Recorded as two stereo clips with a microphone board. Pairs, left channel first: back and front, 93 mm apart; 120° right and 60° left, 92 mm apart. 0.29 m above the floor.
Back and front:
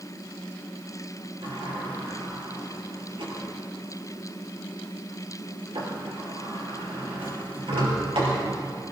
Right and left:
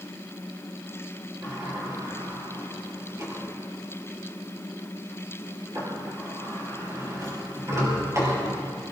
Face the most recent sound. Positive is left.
turn(degrees=5)